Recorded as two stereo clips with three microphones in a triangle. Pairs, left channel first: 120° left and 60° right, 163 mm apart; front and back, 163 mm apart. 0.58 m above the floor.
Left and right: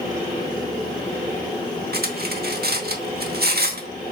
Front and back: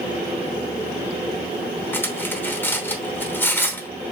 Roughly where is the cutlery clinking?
Right.